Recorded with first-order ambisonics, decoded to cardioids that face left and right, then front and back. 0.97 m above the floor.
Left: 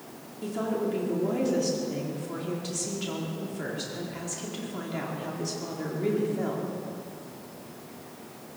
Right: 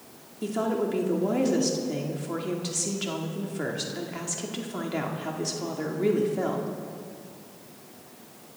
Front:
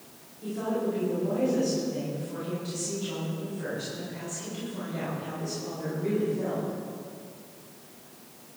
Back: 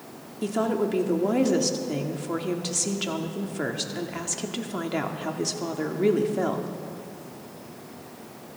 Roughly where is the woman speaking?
Behind.